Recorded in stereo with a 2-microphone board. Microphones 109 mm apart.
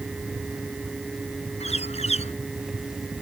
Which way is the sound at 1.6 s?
75° left (ahead or behind).